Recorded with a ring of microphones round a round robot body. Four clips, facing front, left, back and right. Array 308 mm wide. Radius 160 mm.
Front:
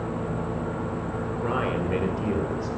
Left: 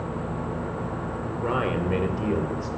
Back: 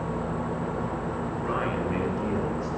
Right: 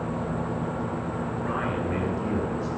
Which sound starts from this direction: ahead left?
A man speaking, at 1.4 s.